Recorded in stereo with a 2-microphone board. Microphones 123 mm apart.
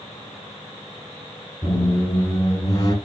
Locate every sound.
1.6 s a squeak: 40° left (ahead or behind), 1.4 m